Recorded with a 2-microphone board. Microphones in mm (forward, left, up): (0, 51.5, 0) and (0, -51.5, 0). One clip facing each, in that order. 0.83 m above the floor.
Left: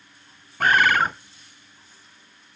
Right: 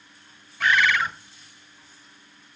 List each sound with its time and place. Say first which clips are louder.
0.6 s a bird: left 3 dB; 45° left (ahead or behind), 0.6 m